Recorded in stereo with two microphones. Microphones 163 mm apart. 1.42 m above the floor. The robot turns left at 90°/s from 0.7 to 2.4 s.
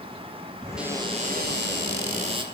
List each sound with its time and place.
0.8 s a cupboard door: 5° right, 3.5 m; by 2.4 s 150° right, 3.5 m